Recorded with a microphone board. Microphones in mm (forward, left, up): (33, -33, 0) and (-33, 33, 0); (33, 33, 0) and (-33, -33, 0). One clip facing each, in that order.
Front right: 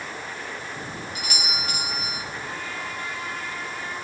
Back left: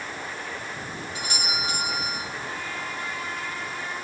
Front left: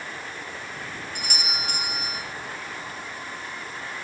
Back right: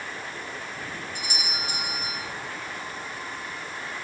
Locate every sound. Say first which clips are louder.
1.1 s a doorbell: back left 3 dB, front left 3 dB; 75° left, 5.5 m